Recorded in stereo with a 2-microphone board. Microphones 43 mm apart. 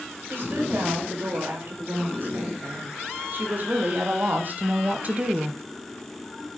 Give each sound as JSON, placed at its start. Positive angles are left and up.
{"t": 0.3, "sound": "a woman speaking", "side_deg": -55, "distance_m": 7.5}